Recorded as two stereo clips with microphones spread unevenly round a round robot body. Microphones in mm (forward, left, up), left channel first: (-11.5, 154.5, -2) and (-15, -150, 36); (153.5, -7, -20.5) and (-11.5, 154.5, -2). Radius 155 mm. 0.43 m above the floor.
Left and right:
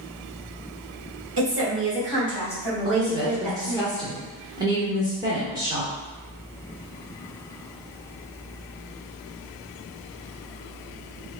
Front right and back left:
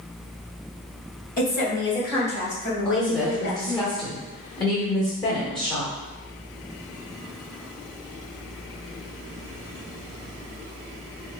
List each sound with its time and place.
1.4 s a woman speaking: 65° right, 1.3 m; by 3.9 s 20° right, 3.5 m
2.9 s a woman speaking: 15° right, 1.0 m